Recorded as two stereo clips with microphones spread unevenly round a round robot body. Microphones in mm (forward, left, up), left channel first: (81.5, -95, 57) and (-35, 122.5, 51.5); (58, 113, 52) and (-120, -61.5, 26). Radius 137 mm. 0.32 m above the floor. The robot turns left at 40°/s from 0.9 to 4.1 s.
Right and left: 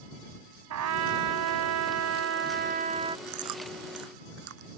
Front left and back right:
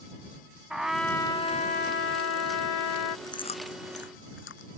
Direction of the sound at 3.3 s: 120° left.